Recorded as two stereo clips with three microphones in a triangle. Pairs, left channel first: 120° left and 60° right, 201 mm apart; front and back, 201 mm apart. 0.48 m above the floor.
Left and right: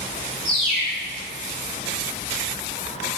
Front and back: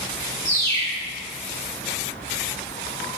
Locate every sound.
0.5 s a bird: 65° left, 1.7 m